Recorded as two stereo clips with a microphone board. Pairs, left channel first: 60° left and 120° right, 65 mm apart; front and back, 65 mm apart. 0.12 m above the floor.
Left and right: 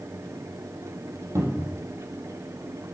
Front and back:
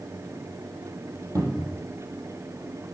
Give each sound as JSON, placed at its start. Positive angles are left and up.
{"t": 1.4, "sound": "a cupboard door", "azimuth_deg": -155, "distance_m": 2.5}